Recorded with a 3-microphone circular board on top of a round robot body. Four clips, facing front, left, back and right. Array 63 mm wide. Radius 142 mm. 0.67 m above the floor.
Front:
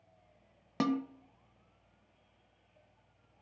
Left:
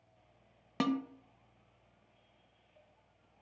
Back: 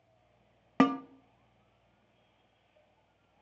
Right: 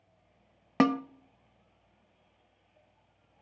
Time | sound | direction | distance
0.8 | a snare drum | 135° right | 0.7 m